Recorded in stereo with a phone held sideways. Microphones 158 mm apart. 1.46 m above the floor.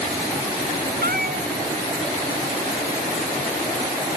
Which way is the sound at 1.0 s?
75° right (ahead or behind).